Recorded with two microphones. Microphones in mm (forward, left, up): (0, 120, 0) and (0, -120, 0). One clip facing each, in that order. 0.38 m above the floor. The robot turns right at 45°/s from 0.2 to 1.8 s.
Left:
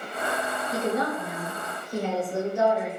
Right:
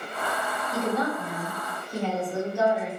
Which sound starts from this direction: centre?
A woman speaking, at 0.7 s.